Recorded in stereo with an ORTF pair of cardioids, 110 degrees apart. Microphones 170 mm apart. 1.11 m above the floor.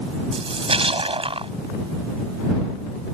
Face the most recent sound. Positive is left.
turn(degrees=-30)